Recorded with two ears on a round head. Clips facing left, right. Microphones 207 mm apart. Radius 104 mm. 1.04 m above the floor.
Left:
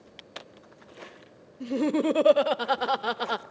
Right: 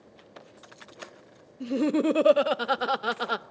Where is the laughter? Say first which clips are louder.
Right 1 dB; 5° right (ahead or behind), 0.6 m.